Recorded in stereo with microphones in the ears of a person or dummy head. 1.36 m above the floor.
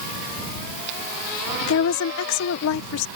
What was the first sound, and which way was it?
A woman speaking, 70° left (ahead or behind).